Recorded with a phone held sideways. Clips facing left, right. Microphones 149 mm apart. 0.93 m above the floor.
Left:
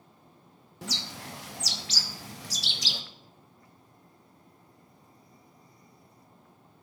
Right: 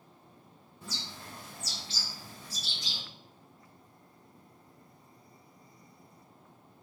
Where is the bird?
85° left, 0.5 m.